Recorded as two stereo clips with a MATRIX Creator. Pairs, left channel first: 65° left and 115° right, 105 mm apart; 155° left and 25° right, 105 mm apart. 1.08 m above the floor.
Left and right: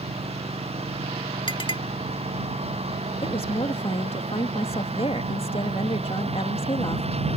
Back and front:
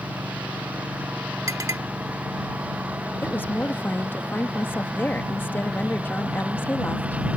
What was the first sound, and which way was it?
A lawn mower, 100° right.